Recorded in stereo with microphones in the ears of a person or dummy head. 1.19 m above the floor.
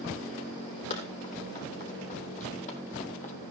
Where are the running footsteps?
35° left (ahead or behind), 4.5 m; by 3.3 s 40° left (ahead or behind), 2.5 m.